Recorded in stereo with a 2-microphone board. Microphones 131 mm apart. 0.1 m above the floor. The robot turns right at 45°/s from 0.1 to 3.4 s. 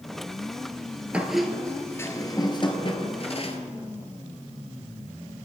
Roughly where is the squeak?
Ahead.